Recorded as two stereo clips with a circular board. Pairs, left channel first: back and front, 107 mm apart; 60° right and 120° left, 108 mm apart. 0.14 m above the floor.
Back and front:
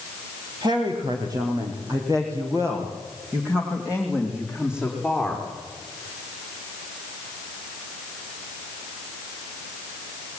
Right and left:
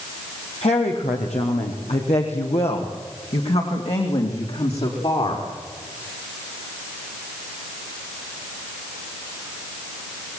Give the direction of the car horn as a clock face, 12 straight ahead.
I don't hear a car horn.